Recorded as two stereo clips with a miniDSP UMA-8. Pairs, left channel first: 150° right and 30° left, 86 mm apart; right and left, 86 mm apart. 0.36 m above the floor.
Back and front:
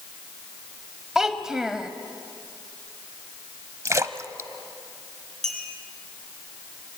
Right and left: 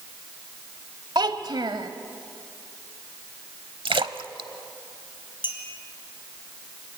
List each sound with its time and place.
1.1 s a child speaking: 115° left, 1.0 m
3.9 s a splash: 85° left, 0.7 m
5.4 s a clink: 65° right, 3.5 m